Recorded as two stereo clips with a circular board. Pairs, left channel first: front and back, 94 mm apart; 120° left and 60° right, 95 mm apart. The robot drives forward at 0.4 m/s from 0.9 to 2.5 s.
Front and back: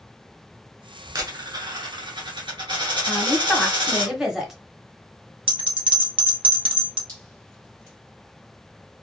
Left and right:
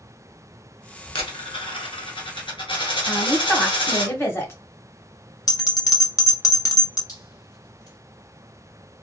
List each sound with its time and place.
1.1 s a dropped coin: 125° left, 0.8 m; by 4.1 s 150° left, 1.2 m
3.1 s a woman speaking: 105° left, 0.9 m
5.5 s a bell: 165° left, 0.8 m
7.1 s dripping: 145° left, 1.7 m